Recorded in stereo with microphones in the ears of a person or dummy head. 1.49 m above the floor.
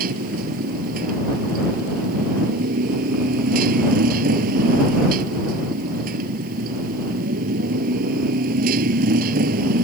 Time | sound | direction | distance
0.0 | a motorcycle | 55° right (ahead or behind) | ?